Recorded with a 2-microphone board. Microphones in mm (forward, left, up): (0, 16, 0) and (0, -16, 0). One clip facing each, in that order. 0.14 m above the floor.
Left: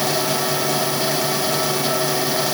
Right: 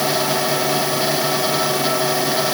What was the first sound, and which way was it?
Only background noise.